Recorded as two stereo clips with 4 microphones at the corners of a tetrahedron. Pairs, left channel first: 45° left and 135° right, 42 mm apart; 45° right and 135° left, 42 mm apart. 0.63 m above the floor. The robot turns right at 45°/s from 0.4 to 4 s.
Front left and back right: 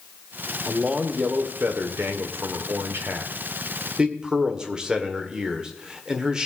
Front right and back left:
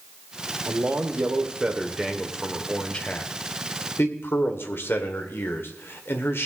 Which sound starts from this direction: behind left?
A man speaking, at 0.7 s.